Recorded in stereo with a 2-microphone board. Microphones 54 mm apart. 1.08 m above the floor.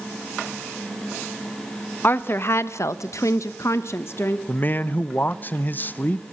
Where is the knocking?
No knocking in this recording.